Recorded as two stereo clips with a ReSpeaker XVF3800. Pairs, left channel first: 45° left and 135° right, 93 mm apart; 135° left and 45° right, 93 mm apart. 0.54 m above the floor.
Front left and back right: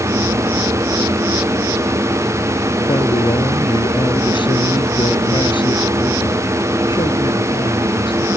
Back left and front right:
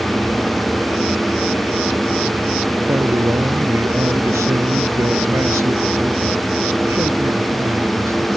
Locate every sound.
2.9 s a man speaking: 15° left